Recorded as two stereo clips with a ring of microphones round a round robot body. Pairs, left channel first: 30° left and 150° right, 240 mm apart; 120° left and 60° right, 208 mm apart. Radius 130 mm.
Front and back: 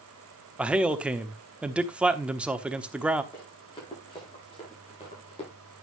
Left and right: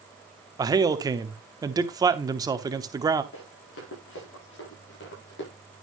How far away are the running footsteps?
About 8.5 m.